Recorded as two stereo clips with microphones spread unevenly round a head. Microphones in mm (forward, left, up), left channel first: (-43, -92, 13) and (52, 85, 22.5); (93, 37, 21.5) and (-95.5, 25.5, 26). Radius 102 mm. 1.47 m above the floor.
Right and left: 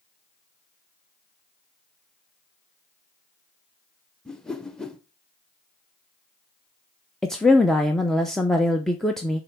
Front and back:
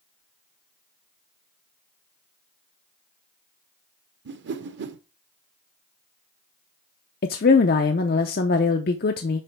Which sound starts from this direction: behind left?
A whoosh, at 4.2 s.